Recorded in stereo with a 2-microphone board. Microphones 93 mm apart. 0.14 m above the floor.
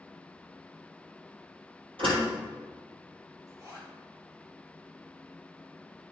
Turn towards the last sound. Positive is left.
turn(degrees=-35)  # may be behind; listen again after turning